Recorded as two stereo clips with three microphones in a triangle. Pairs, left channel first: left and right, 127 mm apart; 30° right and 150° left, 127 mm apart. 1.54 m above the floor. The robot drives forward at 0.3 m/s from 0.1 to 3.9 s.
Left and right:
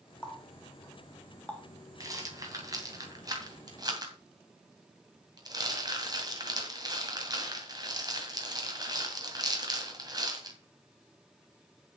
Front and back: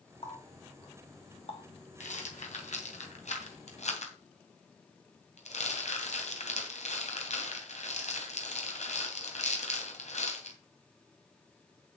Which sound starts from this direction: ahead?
A running tap, at 0.2 s.